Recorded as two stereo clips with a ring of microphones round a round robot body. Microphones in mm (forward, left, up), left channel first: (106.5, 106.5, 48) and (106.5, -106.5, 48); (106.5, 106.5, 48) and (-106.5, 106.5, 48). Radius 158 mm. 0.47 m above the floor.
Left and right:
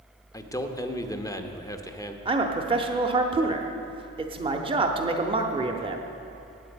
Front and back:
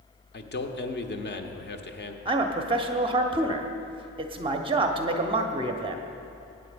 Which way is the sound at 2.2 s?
135° right.